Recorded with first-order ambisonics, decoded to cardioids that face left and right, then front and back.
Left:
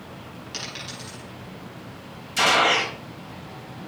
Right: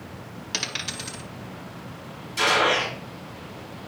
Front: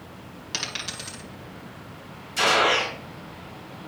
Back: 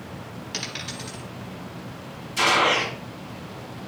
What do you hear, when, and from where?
0.5 s a dropped coin: 60° right, 1.8 m
2.4 s a gunshot: 85° left, 3 m